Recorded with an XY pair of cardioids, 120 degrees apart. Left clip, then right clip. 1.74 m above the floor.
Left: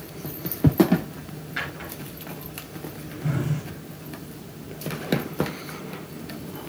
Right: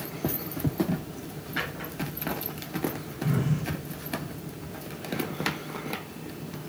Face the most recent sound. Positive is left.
turn(degrees=10)